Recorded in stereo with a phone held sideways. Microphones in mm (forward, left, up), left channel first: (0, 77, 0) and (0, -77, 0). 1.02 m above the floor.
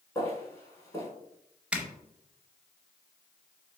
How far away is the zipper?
About 0.6 m.